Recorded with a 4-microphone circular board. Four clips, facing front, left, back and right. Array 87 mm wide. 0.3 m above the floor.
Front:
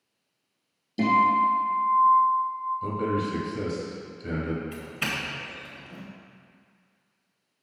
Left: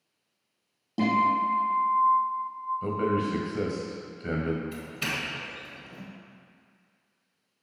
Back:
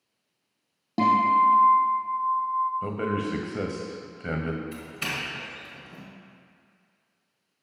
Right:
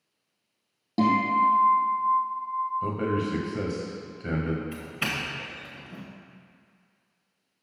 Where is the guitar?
160° right, 3 m.